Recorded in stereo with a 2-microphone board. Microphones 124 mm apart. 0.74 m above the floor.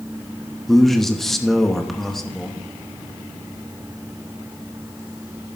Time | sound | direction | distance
0.7 | a man speaking | centre (ahead or behind) | 1.0 m